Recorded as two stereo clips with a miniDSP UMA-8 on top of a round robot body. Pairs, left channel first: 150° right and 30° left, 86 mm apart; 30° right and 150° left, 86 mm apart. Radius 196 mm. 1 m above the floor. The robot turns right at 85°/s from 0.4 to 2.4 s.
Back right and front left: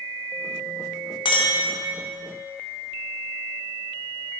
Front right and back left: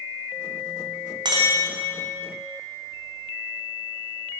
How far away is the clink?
About 0.5 m.